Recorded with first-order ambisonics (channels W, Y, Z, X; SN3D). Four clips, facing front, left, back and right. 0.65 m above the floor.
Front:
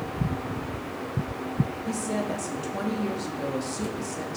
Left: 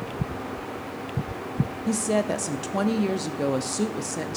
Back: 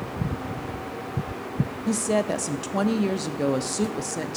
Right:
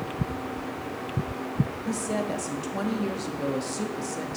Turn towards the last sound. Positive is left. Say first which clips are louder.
# left 8 dB, back 5 dB
turn(degrees=140)